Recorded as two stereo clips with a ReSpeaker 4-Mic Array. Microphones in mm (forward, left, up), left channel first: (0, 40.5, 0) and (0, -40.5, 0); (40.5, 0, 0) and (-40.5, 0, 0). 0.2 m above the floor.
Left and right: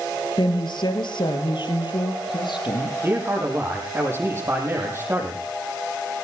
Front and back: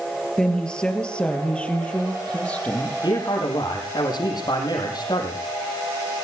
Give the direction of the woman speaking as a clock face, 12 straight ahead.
9 o'clock.